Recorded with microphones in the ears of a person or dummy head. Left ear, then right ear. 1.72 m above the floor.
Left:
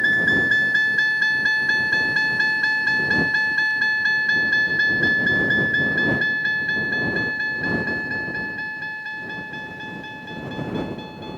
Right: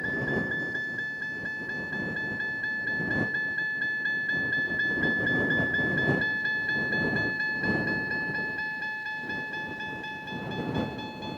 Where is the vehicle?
80° left; by 11.4 s 15° right (ahead or behind).